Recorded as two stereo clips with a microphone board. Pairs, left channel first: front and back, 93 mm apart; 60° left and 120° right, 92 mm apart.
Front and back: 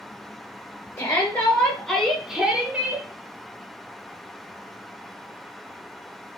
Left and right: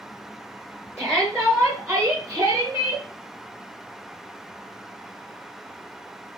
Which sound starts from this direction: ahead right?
A shout, at 1.0 s.